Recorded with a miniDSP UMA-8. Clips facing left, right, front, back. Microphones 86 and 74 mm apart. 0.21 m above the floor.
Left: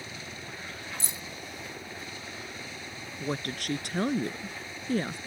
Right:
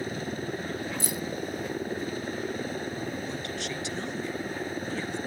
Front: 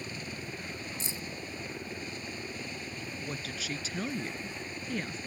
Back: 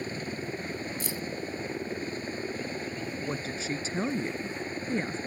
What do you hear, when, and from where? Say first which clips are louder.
0.0 s a helicopter: right 10 dB, back 6 dB; 130° right
1.0 s keys jangling: right 9 dB, back 5 dB; 50° left
3.2 s a woman speaking: even, back 4 dB; 125° left